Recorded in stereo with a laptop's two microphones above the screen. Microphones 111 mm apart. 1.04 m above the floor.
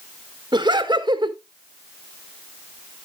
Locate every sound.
0.5 s laughter: 40° right (ahead or behind), 1.5 m